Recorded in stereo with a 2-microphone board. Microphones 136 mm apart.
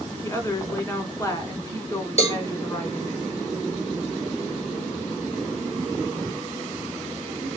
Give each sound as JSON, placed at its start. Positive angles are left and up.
{"t": 0.2, "sound": "a woman speaking", "side_deg": 20, "distance_m": 1.3}
{"t": 2.2, "sound": "a cowbell", "side_deg": 50, "distance_m": 1.4}